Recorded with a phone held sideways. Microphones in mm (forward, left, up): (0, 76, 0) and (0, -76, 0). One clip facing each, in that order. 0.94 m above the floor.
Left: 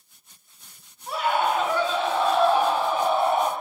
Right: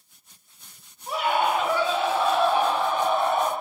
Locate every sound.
1.1 s a scream: 20° right (ahead or behind), 5 m; by 3.5 s 15° left (ahead or behind), 4 m